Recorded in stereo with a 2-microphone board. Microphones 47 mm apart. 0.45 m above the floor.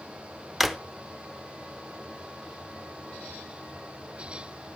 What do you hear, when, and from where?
0.6 s a drawer: 5° right (ahead or behind), 0.6 m